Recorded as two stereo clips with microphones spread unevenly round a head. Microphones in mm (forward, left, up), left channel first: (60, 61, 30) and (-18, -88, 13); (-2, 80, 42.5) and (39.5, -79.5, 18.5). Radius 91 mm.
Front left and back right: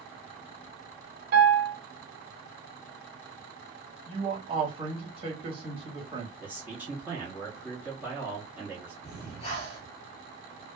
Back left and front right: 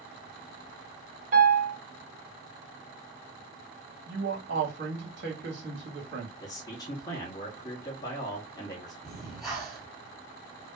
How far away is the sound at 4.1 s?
About 1.5 m.